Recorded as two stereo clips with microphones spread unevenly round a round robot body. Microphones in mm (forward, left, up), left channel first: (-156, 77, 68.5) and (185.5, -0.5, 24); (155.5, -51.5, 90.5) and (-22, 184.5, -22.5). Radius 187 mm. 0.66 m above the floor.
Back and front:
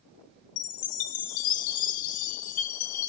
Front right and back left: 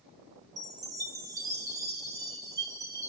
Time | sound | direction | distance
0.6 | a chime | 160° right | 0.7 m